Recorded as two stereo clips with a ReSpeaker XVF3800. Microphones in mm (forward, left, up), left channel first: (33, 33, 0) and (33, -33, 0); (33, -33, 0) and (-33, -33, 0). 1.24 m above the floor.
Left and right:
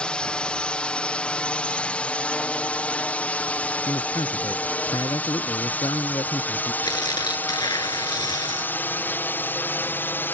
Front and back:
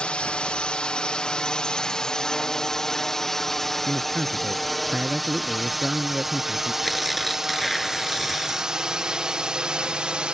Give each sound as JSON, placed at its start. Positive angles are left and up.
{"t": 0.0, "sound": "a drone", "azimuth_deg": 45}
{"t": 3.9, "sound": "a man speaking", "azimuth_deg": 100}
{"t": 6.8, "sound": "tearing paper", "azimuth_deg": 90}